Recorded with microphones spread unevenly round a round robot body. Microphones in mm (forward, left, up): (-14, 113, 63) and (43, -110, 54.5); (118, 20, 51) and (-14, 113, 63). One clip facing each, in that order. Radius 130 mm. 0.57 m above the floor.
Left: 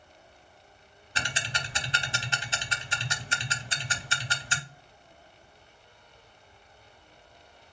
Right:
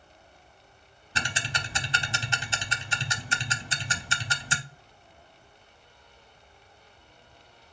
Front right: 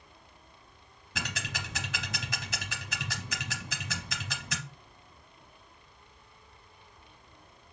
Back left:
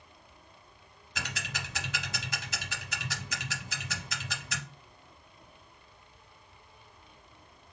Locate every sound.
1.1 s ticking: 75° right, 0.7 m